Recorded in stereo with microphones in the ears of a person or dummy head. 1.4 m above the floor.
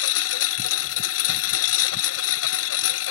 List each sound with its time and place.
0.0 s a lawn mower: 75° left (ahead or behind)